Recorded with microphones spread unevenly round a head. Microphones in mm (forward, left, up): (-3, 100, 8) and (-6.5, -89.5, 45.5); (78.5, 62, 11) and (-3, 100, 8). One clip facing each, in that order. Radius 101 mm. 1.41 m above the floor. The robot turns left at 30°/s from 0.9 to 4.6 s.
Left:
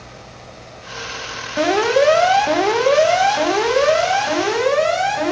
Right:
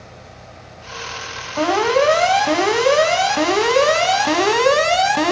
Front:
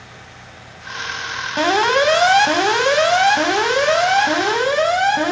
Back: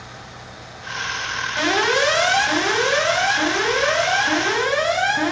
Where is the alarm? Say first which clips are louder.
Left 1 dB, front 4 dB; 20° left, 0.9 m; by 5.3 s 70° right, 0.9 m.